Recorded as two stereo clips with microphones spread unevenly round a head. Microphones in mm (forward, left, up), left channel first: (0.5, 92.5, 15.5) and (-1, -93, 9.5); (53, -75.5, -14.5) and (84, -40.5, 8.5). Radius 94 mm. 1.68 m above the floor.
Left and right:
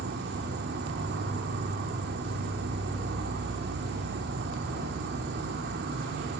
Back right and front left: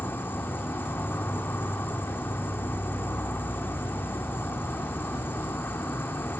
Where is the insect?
70° right, 1.7 m.